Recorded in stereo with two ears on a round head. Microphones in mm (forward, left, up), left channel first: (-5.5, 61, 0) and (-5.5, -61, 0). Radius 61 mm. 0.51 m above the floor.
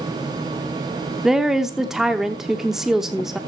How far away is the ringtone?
No ringtone in this recording.